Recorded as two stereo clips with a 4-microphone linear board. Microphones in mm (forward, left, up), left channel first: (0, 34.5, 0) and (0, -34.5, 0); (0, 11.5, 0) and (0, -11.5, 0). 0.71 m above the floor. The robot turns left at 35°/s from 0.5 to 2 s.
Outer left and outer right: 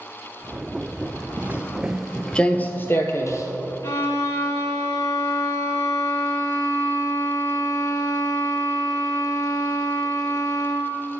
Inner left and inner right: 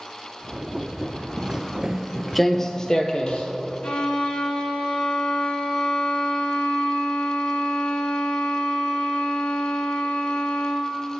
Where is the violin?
55° left (ahead or behind), 1.7 m.